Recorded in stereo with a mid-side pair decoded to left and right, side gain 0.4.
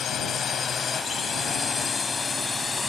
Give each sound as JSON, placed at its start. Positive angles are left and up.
{"t": 0.0, "sound": "a drone", "azimuth_deg": 65}